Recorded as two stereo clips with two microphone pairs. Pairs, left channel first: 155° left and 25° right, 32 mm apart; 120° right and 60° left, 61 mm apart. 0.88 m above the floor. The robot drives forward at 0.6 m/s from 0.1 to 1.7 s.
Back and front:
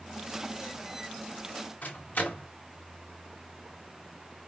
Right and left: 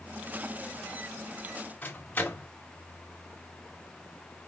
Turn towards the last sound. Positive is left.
turn(degrees=180)